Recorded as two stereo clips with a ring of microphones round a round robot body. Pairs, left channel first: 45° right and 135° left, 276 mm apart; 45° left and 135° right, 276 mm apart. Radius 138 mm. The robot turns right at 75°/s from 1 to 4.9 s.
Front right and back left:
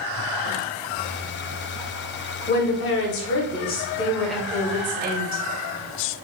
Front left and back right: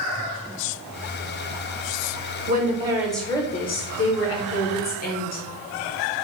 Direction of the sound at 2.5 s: 95° right.